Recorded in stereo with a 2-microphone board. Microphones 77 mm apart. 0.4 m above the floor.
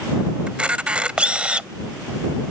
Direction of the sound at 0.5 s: 15° right (ahead or behind).